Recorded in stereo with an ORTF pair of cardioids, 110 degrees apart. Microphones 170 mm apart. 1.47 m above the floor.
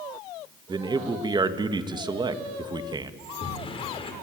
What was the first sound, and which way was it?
A man speaking, 25° right.